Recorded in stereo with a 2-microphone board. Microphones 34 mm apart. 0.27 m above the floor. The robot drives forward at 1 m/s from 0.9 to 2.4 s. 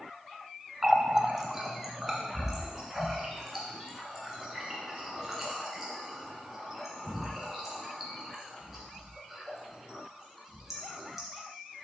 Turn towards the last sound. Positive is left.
turn(degrees=-5)  # may be behind; listen again after turning